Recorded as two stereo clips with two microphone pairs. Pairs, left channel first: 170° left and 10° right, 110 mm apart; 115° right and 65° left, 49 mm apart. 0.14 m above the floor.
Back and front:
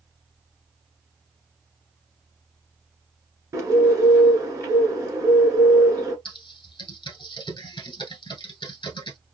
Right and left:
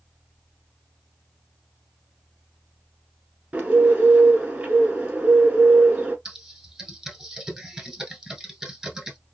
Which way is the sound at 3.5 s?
20° left.